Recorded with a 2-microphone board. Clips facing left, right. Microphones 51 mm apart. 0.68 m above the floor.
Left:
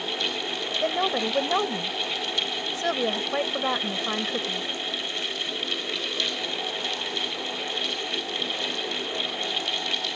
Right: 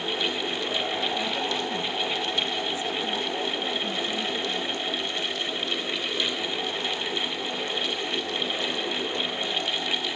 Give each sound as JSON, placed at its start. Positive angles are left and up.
{"t": 0.8, "sound": "a woman speaking", "side_deg": 70}